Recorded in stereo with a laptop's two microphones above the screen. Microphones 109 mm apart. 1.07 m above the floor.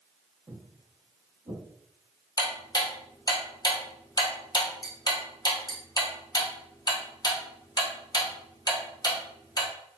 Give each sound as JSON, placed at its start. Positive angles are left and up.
{"t": 0.5, "sound": "footsteps", "side_deg": -25, "distance_m": 1.2}
{"t": 2.4, "sound": "ticking", "side_deg": 40, "distance_m": 0.8}